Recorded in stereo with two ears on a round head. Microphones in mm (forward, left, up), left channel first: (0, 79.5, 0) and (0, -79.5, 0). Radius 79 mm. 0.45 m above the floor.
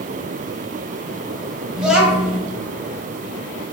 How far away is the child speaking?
About 1.2 m.